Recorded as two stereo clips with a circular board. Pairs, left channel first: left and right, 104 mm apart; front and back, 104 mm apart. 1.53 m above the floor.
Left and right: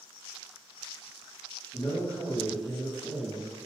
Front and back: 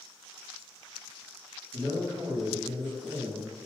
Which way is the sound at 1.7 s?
130° left.